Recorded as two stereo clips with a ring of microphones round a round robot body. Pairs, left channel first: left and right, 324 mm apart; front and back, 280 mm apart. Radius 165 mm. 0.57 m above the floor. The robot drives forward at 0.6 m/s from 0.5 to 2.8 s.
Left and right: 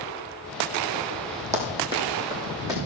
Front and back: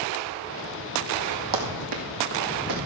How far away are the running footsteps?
About 1.7 m.